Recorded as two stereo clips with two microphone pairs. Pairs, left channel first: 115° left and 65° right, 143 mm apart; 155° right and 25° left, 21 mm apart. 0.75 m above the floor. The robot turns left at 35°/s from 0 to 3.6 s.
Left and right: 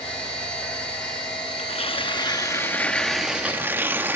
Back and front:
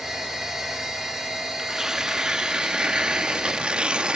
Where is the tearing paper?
80° left, 0.8 m; by 4.2 s 10° left, 0.8 m.